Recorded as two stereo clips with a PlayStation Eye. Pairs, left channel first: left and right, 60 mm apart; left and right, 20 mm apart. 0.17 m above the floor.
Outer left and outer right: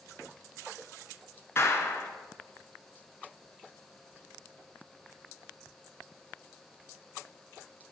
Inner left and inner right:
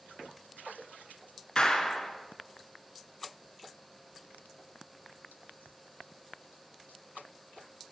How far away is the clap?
About 1.3 m.